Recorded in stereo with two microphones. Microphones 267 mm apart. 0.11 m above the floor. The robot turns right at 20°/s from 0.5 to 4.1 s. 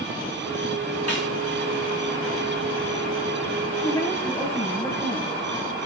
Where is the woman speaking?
15° left (ahead or behind), 2.5 m; by 5.3 s 10° left (ahead or behind), 2.5 m.